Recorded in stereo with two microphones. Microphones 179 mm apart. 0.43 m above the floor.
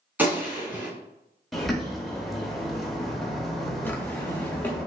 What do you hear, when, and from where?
0.2 s a gunshot: 10° right (ahead or behind), 1.4 m
1.5 s a bird: centre (ahead or behind), 0.9 m
3.9 s a drawer: 10° left (ahead or behind), 0.7 m